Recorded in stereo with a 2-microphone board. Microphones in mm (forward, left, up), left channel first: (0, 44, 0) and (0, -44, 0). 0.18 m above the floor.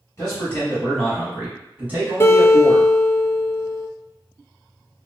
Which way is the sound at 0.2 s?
30° left (ahead or behind).